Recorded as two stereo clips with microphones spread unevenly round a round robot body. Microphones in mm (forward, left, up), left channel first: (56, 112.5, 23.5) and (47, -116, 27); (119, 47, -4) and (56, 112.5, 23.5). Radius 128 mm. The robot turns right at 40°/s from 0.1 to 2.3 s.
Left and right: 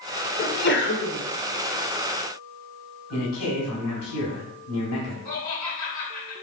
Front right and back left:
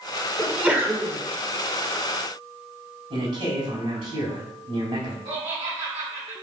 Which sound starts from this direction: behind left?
Laughter, at 5.2 s.